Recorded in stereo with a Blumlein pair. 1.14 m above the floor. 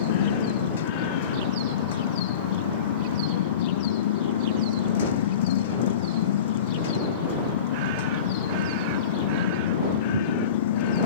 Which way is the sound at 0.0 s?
55° left.